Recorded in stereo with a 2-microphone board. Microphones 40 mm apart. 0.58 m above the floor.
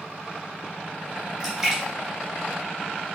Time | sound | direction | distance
1.4 | a splash | 15° right (ahead or behind) | 3 m